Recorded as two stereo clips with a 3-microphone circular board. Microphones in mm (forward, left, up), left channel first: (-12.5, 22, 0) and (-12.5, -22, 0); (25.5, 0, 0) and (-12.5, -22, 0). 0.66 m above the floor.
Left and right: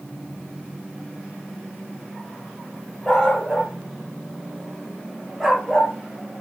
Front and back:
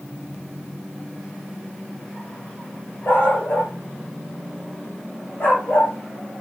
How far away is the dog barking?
About 6.5 m.